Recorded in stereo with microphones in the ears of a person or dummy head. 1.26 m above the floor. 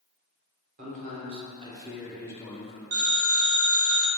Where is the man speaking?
35° right (ahead or behind), 1.1 m; by 2.8 s 35° left (ahead or behind), 0.6 m.